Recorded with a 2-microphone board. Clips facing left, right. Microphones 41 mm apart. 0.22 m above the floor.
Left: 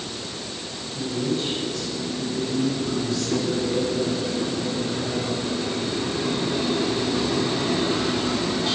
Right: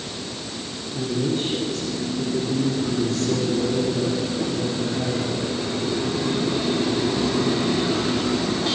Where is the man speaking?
50° right (ahead or behind), 10 m.